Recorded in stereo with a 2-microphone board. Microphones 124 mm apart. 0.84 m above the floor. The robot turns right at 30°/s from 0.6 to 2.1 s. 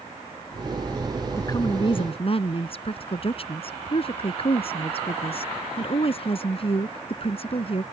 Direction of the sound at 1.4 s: 25° left (ahead or behind).